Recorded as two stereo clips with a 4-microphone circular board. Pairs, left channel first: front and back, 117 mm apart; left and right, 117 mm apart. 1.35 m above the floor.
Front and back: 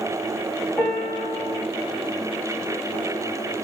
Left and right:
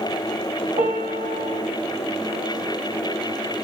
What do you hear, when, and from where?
0.8 s a piano: 100° right, 1.7 m